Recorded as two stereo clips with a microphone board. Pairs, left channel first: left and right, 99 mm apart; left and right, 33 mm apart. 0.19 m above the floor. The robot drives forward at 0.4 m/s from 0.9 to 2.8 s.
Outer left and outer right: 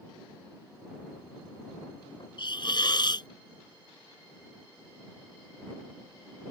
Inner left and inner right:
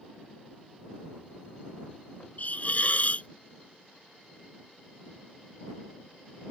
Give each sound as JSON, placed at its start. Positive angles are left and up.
{"t": 2.4, "sound": "a hiss", "side_deg": 50}